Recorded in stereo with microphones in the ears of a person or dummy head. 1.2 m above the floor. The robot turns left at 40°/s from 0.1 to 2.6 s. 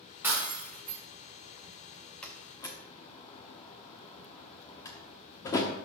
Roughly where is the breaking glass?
Behind.